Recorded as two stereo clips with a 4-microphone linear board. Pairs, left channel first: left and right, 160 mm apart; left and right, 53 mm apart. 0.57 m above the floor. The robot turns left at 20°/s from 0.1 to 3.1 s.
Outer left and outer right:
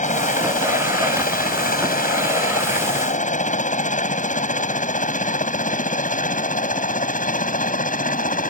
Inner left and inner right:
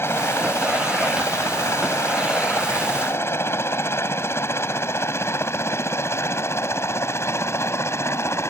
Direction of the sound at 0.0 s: 55° left (ahead or behind).